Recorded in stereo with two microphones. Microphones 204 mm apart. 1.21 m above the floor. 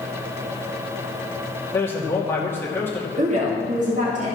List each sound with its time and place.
1.7 s a man speaking: 10° left (ahead or behind), 2.5 m
3.2 s a woman speaking: 35° right (ahead or behind), 2.5 m